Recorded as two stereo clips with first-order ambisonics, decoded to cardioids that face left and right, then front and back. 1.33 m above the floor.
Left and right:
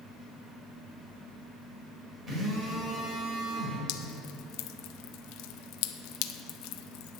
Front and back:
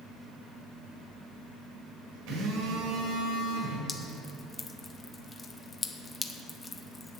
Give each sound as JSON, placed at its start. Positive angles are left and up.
{"t": 2.3, "sound": "a phone buzzing", "azimuth_deg": -160, "distance_m": 4.0}
{"t": 3.9, "sound": "dripping", "azimuth_deg": 75, "distance_m": 0.5}